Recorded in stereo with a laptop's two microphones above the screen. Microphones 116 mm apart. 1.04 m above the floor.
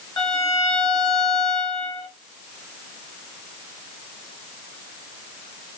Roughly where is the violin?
Left.